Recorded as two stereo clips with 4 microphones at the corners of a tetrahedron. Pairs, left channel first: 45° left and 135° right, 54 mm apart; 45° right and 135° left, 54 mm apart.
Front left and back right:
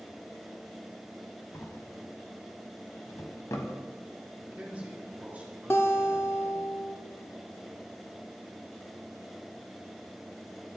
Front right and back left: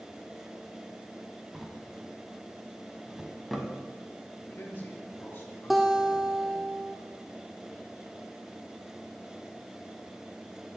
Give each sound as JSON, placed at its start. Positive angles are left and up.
{"t": 1.5, "sound": "a drawer", "azimuth_deg": 50, "distance_m": 1.0}
{"t": 4.4, "sound": "a man speaking", "azimuth_deg": -80, "distance_m": 2.5}
{"t": 5.7, "sound": "a guitar", "azimuth_deg": 45, "distance_m": 0.8}